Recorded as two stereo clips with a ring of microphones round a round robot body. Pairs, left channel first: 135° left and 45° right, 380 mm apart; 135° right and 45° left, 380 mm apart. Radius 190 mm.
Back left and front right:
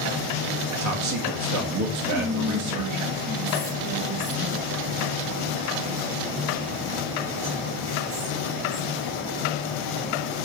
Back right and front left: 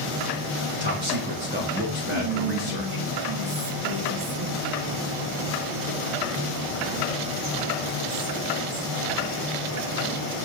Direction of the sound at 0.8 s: 15° right.